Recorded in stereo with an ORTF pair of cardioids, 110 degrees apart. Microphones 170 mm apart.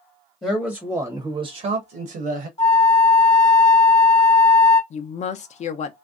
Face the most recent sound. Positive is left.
turn(degrees=45)